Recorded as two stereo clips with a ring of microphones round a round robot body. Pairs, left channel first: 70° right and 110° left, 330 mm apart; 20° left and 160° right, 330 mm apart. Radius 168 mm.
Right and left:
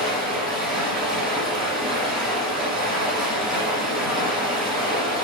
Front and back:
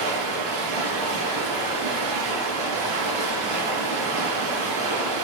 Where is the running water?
160° right, 5 m.